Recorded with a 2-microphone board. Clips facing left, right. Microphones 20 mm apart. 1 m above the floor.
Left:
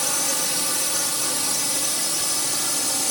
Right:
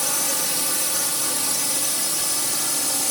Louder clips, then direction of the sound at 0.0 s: Even; 15° left (ahead or behind).